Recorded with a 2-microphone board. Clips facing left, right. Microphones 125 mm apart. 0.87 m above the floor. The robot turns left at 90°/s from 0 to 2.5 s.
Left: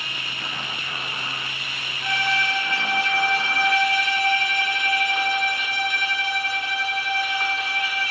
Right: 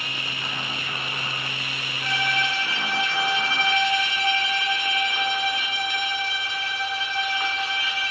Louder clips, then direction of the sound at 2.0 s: Left 2 dB; 160° left.